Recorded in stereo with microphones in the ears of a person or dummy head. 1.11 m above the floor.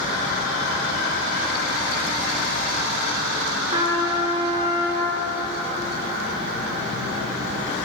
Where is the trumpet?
15° right (ahead or behind), 1.2 m.